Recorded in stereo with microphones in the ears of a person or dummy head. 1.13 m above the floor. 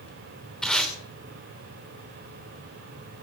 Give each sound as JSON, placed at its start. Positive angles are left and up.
{"t": 0.6, "sound": "tape being pulled", "side_deg": 5, "distance_m": 3.0}